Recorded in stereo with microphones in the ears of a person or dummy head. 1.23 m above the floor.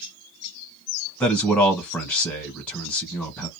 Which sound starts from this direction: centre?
A man speaking, at 1.2 s.